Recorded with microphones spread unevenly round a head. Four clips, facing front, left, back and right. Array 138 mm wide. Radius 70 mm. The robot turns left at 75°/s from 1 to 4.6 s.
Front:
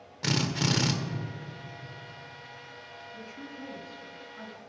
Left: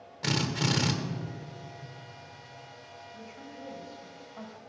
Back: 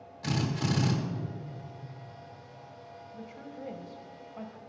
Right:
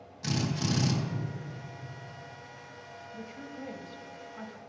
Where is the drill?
30° left, 1.4 m.